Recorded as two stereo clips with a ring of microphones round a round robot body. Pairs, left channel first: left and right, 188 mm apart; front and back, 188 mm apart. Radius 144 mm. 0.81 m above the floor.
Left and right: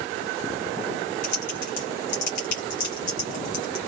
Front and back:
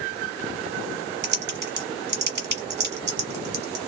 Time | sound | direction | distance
1.2 | typing on a keyboard | 145° left | 1.2 m